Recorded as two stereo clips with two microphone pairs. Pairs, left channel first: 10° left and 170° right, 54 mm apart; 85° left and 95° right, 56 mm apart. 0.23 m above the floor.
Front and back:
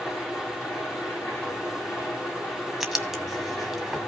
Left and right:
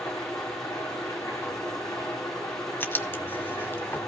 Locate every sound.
0.0 s an engine running: 70° left, 8 m
2.8 s writing: 105° left, 1.6 m